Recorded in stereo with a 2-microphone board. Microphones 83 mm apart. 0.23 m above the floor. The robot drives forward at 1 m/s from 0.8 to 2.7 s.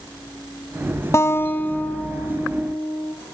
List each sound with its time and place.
1.1 s a guitar: 30° left (ahead or behind), 0.7 m; by 3.1 s 10° left (ahead or behind), 2 m